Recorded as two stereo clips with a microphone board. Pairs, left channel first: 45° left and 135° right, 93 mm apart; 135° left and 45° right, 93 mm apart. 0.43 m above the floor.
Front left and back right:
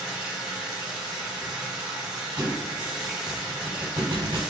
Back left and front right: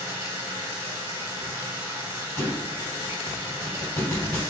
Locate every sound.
0.0 s running water: 55° right, 0.9 m
2.4 s a thud: 170° right, 0.8 m